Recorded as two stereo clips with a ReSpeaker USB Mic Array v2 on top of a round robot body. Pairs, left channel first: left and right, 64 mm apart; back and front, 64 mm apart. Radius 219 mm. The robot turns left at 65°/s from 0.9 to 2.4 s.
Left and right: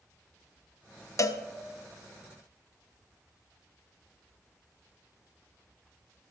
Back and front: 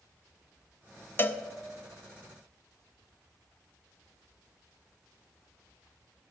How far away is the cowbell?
About 0.7 m.